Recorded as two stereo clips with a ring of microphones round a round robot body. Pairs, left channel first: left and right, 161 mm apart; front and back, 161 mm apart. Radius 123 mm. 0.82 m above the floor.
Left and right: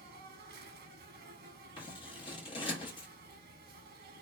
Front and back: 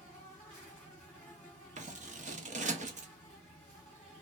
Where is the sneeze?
No sneeze in this recording.